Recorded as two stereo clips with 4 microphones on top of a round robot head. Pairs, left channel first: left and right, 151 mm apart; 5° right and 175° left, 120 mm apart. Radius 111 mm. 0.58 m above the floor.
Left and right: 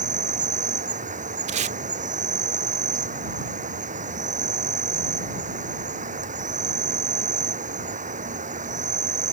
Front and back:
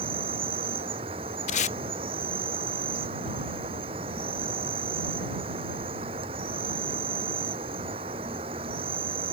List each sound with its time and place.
0.0 s an insect: 130° right
1.5 s tape being pulled: 40° right